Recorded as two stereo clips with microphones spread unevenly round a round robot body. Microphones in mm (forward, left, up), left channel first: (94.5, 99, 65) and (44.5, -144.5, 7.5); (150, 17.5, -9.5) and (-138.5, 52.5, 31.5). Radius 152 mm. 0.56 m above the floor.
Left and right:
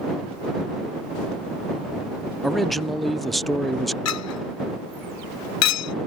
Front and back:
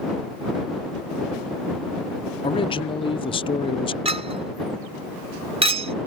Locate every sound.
2.4 s a man speaking: 35° right
4.0 s a clink: 100° left